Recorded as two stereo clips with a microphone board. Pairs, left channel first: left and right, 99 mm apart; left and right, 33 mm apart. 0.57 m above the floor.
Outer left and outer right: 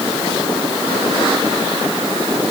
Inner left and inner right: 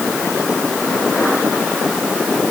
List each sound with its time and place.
Only background noise.